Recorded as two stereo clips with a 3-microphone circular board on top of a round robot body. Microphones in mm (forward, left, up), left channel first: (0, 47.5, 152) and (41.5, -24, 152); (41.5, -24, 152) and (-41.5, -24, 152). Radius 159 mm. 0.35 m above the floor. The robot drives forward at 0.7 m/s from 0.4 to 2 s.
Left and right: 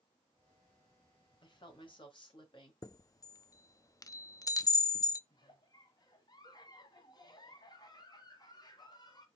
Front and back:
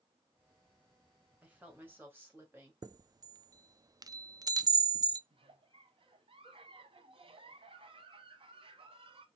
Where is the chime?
155° left, 0.6 m.